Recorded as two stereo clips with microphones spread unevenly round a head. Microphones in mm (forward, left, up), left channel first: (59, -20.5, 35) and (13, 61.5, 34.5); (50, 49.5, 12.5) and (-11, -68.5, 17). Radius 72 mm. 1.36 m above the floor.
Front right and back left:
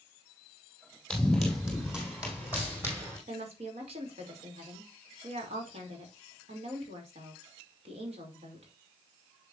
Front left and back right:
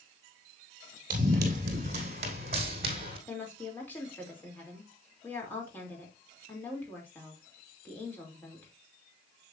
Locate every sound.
1.1 s running footsteps: 150° right, 3.5 m; by 3.2 s 170° right, 3.5 m
3.3 s a woman speaking: 140° left, 3 m